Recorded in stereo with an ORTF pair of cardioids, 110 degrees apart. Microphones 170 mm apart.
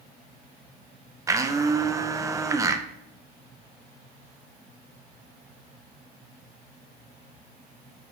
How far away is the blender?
About 0.7 m.